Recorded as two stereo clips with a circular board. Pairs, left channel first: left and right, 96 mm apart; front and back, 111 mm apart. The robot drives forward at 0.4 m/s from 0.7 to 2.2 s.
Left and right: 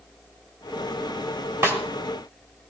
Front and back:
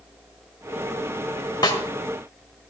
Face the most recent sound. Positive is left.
turn(degrees=-45)